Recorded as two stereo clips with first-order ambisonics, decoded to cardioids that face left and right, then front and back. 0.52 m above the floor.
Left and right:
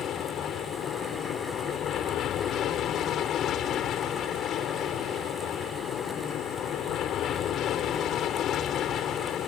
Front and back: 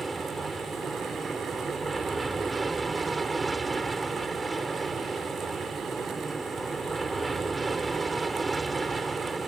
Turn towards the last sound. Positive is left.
turn(degrees=110)